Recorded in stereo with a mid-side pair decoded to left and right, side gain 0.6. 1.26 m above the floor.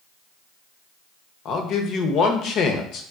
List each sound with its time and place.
1.4 s a man speaking: 55° left, 0.7 m